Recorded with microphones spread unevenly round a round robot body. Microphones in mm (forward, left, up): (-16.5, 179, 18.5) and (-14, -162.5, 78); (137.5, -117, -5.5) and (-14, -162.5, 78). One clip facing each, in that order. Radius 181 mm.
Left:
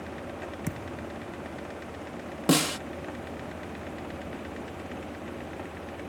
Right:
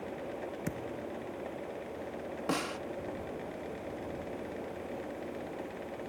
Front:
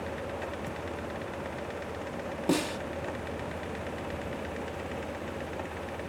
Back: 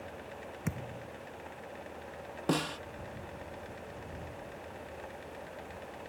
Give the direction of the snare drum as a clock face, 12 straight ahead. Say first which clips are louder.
Left 11 dB, front 4 dB; 9 o'clock.